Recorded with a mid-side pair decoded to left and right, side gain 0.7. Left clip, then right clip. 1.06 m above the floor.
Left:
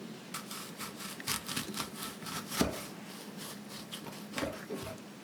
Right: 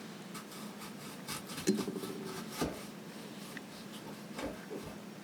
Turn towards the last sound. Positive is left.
turn(degrees=65)